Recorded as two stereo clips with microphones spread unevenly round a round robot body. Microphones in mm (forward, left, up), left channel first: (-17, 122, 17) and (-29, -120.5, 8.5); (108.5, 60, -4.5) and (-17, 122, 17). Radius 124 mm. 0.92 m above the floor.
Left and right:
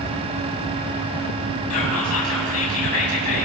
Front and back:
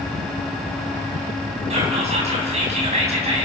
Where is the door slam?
No door slam in this recording.